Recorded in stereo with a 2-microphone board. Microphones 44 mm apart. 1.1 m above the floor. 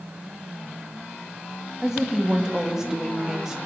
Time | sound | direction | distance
1.8 | a woman speaking | 15° right (ahead or behind) | 2 m